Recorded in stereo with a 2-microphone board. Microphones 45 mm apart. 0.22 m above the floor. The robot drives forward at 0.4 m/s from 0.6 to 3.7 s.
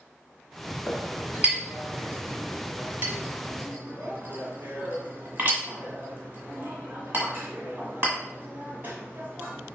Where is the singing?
No singing in this recording.